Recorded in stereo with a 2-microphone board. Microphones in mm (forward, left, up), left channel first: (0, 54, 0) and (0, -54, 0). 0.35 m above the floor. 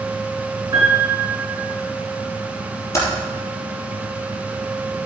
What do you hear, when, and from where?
0.7 s a piano: 30° right (ahead or behind), 3.5 m
2.9 s typing on a keyboard: 25° left (ahead or behind), 3.5 m